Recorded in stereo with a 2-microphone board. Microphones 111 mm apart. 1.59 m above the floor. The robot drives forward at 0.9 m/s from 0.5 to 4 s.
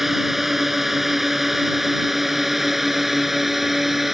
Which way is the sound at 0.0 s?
5° right (ahead or behind).